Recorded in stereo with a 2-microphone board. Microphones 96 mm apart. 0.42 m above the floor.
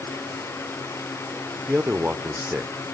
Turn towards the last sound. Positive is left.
turn(degrees=-20)  # may be behind; listen again after turning